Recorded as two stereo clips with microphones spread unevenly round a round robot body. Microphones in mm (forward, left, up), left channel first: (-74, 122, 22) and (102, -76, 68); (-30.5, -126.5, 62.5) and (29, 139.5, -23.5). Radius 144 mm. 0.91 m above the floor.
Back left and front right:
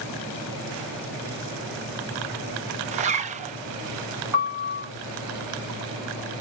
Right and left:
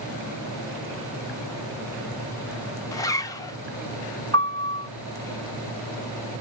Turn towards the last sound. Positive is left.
turn(degrees=-25)